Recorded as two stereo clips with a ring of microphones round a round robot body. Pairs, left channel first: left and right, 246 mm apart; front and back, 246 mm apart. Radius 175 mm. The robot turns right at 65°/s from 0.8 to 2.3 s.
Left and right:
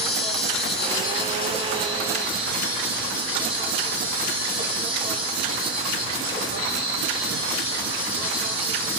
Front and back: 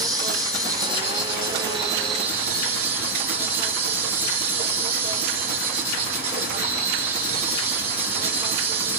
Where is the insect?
110° left, 2.5 m; by 9.0 s 150° right, 2.5 m.